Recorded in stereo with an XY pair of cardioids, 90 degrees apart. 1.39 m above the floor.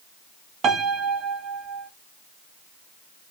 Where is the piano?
65° right, 0.6 m.